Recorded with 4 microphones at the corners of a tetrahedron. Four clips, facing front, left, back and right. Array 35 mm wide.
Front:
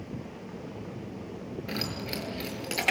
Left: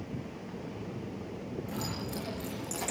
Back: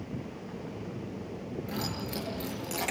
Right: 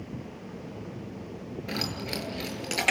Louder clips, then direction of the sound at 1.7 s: Right 8 dB, front 3 dB; 55° right.